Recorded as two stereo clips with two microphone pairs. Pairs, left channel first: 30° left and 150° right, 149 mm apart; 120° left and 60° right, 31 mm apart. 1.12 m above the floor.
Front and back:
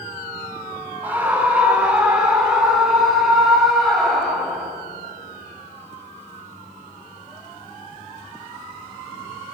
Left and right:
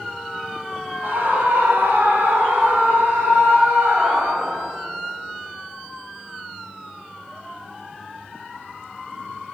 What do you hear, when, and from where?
1.0 s a scream: 75° right, 4.5 m; by 4.7 s 60° right, 6.5 m